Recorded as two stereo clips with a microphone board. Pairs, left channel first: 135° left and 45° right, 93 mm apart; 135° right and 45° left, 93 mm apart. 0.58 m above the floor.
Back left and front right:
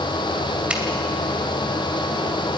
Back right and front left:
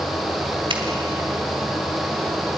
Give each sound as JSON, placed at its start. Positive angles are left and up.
{"t": 0.7, "sound": "a finger snap", "azimuth_deg": 30, "distance_m": 2.5}